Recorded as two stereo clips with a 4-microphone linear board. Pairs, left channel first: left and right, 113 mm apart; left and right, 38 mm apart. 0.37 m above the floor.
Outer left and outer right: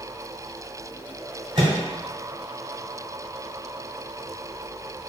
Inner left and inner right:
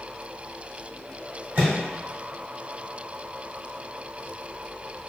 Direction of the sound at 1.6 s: 45° right (ahead or behind).